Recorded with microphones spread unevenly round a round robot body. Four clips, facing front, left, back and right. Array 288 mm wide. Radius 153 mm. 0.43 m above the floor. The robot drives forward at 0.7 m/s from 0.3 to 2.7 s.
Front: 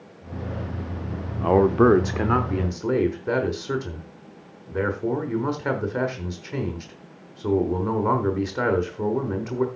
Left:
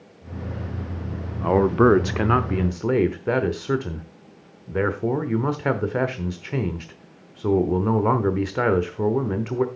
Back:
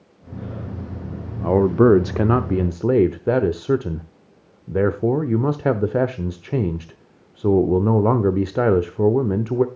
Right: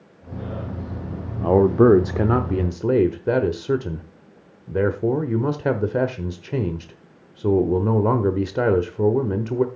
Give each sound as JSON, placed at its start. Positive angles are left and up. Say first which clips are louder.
{"t": 1.4, "sound": "a man speaking", "louder": "right 2 dB, back 2 dB", "azimuth_deg": -55, "distance_m": 0.8}